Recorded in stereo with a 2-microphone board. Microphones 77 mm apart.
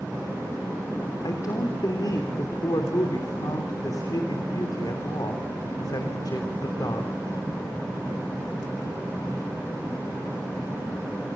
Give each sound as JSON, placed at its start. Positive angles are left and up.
{"t": 1.2, "sound": "a man speaking", "side_deg": 55, "distance_m": 3.0}